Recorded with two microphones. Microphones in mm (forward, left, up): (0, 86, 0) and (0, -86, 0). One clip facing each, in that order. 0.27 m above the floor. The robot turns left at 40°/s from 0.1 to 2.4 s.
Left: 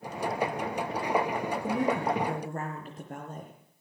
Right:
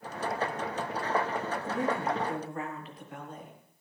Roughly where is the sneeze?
I don't hear a sneeze.